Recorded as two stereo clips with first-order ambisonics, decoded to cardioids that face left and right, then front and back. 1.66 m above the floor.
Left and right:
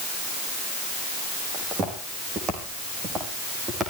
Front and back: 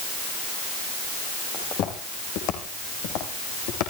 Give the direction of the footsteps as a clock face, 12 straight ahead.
1 o'clock.